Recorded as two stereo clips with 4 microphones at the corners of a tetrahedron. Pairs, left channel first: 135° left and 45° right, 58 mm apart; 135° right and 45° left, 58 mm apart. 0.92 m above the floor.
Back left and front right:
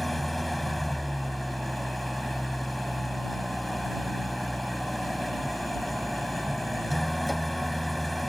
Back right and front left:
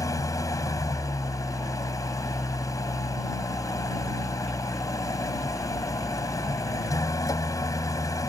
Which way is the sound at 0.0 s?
135° right.